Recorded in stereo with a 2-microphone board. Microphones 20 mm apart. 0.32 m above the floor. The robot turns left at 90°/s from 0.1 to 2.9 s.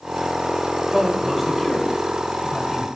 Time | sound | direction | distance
0.9 | a man speaking | 15° right (ahead or behind) | 1.2 m